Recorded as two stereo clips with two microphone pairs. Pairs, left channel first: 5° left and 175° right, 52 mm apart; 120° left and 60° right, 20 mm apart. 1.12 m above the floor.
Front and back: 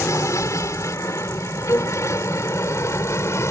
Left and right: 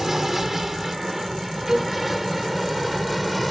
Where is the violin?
5° left.